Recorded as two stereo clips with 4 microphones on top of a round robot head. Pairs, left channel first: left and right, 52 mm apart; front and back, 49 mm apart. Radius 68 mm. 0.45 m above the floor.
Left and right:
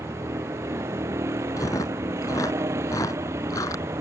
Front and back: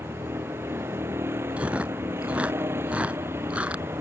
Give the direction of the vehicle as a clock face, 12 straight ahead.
4 o'clock.